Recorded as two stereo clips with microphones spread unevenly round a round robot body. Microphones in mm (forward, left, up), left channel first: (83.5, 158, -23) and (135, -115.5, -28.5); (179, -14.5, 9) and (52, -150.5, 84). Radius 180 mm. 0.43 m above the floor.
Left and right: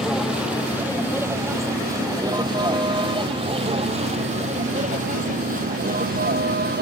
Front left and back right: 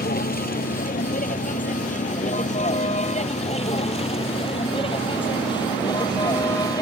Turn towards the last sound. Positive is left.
turn(degrees=-25)